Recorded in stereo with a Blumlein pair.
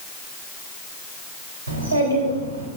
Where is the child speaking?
70° right, 2.5 m.